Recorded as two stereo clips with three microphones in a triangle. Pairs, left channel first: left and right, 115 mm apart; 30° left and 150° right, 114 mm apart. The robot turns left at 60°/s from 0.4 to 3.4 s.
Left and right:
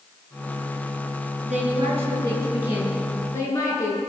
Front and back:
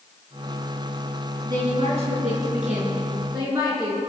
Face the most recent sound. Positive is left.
turn(degrees=150)